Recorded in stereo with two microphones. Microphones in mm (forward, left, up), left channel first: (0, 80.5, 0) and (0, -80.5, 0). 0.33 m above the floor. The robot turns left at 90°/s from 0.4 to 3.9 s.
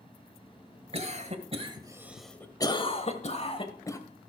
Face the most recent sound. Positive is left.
turn(degrees=20)  # may be behind; listen again after turning